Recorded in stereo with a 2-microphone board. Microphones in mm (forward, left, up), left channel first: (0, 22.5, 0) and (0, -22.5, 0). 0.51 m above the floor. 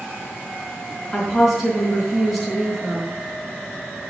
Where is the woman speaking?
5° left (ahead or behind), 5 m.